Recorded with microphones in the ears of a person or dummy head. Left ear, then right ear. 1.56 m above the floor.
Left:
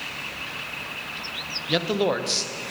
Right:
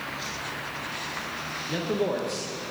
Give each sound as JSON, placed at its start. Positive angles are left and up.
{"t": 1.7, "sound": "a man speaking", "side_deg": 40, "distance_m": 0.7}